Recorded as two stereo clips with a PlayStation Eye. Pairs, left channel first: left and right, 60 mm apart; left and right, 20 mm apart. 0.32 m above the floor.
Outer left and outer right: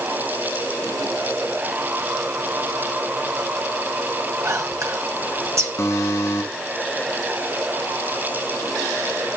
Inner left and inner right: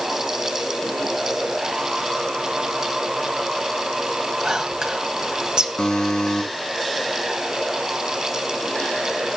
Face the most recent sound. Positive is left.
turn(degrees=55)  # may be behind; listen again after turning